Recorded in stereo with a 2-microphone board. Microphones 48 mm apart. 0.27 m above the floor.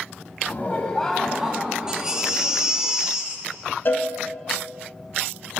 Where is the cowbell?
45° left (ahead or behind), 1.0 m.